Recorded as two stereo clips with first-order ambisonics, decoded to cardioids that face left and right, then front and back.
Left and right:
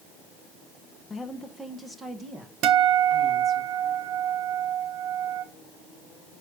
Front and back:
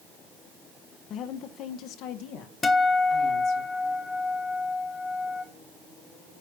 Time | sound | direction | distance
1.1 | a woman speaking | 20° left | 0.6 m
2.6 | a guitar | 70° right | 0.9 m